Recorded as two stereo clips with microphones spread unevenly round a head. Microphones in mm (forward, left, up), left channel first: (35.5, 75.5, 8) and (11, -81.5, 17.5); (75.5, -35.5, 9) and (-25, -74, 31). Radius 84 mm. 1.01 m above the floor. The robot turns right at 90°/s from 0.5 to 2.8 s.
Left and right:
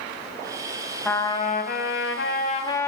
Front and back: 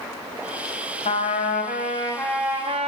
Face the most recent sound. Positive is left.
turn(degrees=155)